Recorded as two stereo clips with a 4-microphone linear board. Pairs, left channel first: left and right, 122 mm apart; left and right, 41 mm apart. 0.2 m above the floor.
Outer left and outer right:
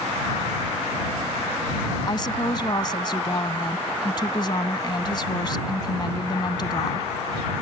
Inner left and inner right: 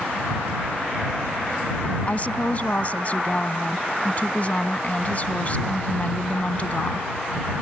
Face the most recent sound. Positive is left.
turn(degrees=40)  # may be behind; listen again after turning